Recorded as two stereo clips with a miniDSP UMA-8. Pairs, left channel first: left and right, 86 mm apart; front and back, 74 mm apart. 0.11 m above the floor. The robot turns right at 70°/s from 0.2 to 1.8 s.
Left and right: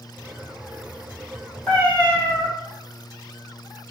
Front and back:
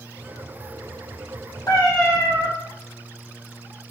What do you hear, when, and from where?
1.7 s a cat meowing: 10° left, 1.6 m; by 2.5 s 20° left, 1.6 m